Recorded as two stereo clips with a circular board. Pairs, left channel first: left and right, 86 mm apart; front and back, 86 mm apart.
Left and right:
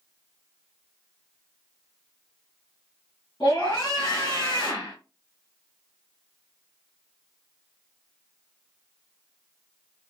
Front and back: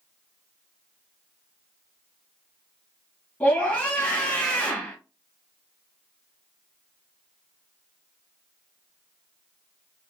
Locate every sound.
3.4 s a scream: 65° left, 2.5 m